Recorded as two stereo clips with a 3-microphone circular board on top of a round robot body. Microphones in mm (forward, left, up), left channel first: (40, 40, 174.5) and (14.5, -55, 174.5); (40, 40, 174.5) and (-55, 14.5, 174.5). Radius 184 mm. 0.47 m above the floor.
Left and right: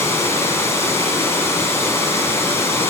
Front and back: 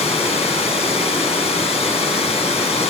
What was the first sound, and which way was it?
Running water, 10° left.